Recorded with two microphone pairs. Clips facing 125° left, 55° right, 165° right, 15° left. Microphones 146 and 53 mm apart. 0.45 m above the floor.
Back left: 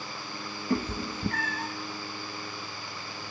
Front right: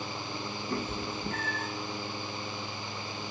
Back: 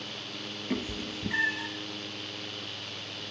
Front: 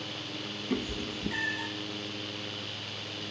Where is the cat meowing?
140° left, 1.0 m.